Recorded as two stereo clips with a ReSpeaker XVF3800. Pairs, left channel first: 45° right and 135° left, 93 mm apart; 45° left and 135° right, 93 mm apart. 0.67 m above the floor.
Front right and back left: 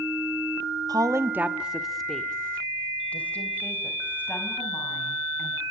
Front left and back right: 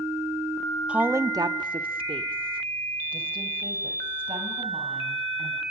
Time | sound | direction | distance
0.9 | a woman speaking | 150° left | 1.0 m